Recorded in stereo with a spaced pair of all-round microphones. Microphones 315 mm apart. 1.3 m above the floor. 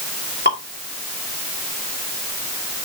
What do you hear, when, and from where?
0.5 s dripping: 30° left (ahead or behind), 3 m